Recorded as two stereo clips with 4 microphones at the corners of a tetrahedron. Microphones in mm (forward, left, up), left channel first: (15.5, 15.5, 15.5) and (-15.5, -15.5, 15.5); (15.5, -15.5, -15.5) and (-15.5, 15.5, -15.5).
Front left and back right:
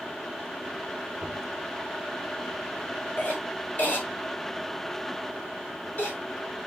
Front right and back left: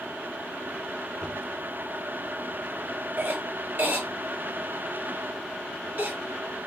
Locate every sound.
1.2 s knocking: 155° right, 3.5 m
3.2 s a cough: 95° left, 5.5 m